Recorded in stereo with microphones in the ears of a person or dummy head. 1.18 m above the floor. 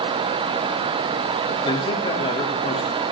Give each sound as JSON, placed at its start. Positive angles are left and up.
{"t": 1.6, "sound": "a man speaking", "side_deg": 25, "distance_m": 2.5}